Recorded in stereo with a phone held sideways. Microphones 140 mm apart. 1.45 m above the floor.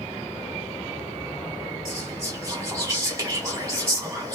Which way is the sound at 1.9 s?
25° right (ahead or behind).